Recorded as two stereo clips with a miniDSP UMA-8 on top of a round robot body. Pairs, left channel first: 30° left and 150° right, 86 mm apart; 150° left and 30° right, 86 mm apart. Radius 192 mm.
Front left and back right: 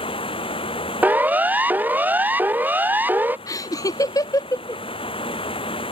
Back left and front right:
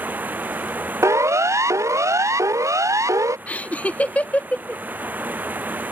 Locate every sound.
0.0 s running water: 40° left
1.0 s a siren: 80° right
3.5 s laughter: 75° left